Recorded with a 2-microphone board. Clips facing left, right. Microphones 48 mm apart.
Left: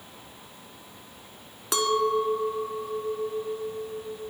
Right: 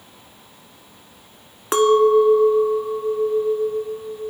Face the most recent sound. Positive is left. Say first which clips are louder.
# right 10 dB
turn(degrees=-35)  # may be behind; listen again after turning